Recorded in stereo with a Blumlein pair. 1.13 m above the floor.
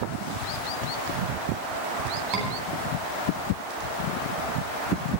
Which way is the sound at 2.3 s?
35° right.